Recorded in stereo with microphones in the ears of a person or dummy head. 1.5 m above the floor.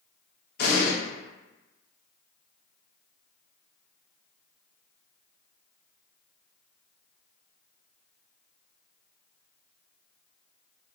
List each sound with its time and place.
0.6 s an explosion: 60° left (ahead or behind), 1.0 m